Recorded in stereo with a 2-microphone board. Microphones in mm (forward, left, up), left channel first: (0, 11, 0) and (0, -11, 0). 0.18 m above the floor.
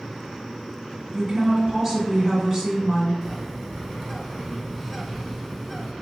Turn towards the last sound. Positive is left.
turn(degrees=10)  # may be behind; listen again after turning